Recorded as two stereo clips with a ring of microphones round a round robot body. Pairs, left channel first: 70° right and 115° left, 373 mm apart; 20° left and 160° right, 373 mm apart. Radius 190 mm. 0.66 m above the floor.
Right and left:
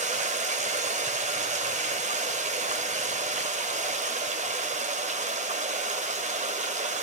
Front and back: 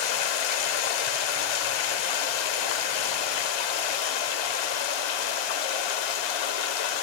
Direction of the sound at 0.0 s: 40° left.